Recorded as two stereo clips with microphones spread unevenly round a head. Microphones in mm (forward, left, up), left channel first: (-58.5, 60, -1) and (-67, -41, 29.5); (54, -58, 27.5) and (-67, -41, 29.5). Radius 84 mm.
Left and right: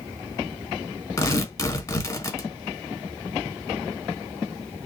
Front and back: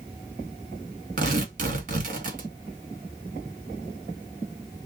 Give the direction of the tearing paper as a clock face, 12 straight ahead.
7 o'clock.